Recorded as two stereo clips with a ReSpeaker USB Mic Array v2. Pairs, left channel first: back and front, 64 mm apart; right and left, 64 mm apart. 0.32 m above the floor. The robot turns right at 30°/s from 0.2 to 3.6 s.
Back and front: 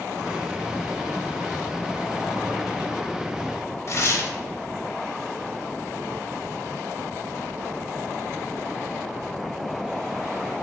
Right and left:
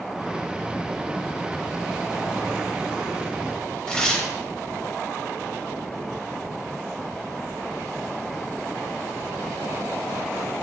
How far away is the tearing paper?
About 0.5 m.